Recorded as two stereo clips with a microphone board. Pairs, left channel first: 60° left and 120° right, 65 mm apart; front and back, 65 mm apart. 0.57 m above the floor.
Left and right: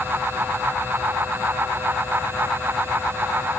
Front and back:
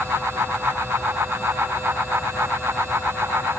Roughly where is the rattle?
I don't hear a rattle.